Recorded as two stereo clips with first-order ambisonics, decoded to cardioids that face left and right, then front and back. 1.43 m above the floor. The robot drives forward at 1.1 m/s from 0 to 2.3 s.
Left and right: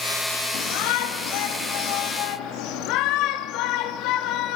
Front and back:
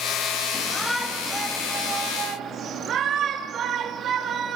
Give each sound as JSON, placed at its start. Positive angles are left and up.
{"t": 0.5, "sound": "a shout", "azimuth_deg": 75, "distance_m": 2.5}